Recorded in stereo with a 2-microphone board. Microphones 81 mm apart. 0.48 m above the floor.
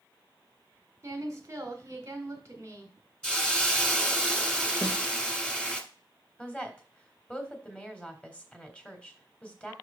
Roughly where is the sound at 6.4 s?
Centre.